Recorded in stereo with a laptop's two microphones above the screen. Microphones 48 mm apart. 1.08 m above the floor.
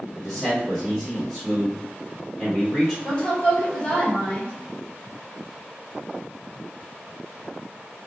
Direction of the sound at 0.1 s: 5° left (ahead or behind).